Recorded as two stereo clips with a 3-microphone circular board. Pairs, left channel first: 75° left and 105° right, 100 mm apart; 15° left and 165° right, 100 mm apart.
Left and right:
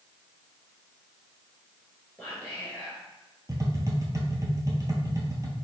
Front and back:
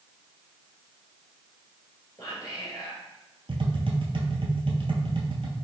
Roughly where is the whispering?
Ahead.